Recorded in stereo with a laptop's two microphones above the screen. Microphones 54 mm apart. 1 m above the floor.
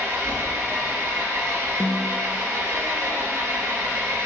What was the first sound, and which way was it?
An engine running, 65° right (ahead or behind).